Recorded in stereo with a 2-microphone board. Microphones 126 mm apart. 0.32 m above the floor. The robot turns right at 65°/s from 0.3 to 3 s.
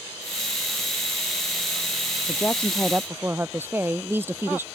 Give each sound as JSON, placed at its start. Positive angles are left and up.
{"t": 2.3, "sound": "a woman speaking", "azimuth_deg": 150}